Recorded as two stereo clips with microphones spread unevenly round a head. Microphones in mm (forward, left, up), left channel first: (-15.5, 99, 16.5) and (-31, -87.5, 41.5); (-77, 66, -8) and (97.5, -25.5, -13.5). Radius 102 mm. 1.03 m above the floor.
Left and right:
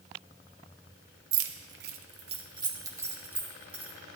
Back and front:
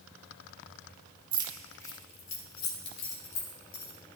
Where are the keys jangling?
95° right, 0.8 m; by 3.9 s straight behind, 2.5 m.